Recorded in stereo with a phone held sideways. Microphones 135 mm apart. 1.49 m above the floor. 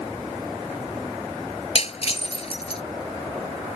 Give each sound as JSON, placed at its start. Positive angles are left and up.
{"t": 1.8, "sound": "breaking glass", "side_deg": 45}